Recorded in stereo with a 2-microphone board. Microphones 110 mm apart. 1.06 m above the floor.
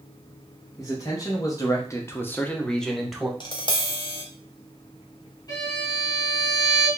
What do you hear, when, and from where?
0.8 s a man speaking: 30° left (ahead or behind), 1.1 m; by 3.3 s 5° right (ahead or behind), 0.9 m
3.4 s tapping: 40° left (ahead or behind), 0.7 m
5.5 s a violin: 35° left (ahead or behind), 2 m